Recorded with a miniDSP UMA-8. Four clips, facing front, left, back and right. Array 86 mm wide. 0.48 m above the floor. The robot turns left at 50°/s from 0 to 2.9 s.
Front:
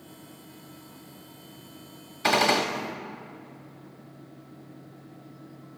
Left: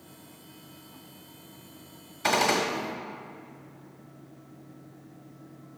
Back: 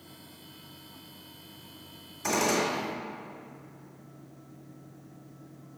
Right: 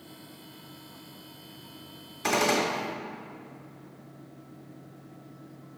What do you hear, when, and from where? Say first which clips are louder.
2.2 s a gunshot: left 1 dB, front 4 dB; 5° left, 1.6 m; by 2.7 s 15° right, 1.6 m